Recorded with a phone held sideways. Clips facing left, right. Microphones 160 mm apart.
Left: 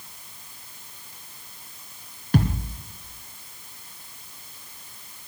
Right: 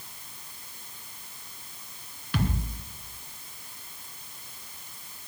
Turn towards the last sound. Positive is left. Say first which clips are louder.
# left 6 dB
turn(degrees=45)  # may be behind; listen again after turning